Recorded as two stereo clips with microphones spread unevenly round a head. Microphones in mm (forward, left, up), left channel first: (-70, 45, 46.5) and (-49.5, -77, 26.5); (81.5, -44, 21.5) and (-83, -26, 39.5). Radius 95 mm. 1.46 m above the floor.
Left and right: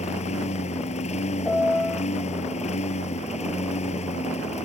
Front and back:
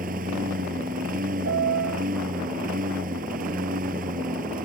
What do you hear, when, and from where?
0.0 s a lawn mower: 125° left
1.4 s a piano: straight behind